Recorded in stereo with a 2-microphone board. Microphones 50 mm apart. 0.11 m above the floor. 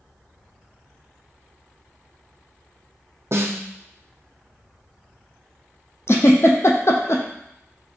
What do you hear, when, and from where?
3.3 s a snare drum: 60° right (ahead or behind), 0.8 m
6.1 s a giggle: 65° left (ahead or behind), 0.7 m